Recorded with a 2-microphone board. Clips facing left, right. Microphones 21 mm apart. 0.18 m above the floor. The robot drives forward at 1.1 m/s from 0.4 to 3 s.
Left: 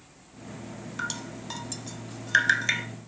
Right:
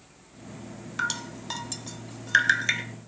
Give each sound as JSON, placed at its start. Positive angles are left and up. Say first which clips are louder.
{"t": 1.0, "sound": "dripping", "louder": "right 4 dB", "side_deg": -15, "distance_m": 0.8}